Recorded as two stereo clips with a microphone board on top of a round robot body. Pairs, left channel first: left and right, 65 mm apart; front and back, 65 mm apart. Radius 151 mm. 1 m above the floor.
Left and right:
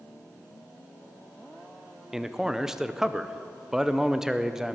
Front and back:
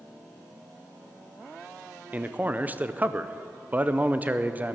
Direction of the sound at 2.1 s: 165° right.